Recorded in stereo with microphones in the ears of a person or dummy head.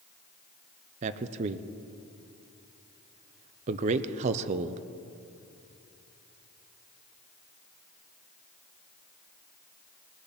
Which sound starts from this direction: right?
A man speaking, at 1.0 s.